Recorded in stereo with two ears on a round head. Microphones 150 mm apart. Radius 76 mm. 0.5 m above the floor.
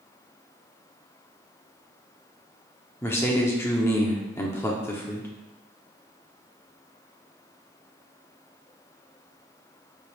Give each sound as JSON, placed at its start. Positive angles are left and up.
{"t": 3.0, "sound": "a man speaking", "side_deg": 15, "distance_m": 0.7}